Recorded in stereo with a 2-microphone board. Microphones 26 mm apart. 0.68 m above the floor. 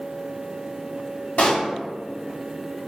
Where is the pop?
65° left (ahead or behind), 1.2 m.